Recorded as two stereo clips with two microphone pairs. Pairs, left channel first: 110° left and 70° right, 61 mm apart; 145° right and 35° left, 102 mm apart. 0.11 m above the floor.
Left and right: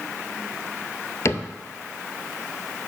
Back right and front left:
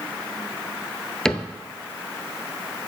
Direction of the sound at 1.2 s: 130° left.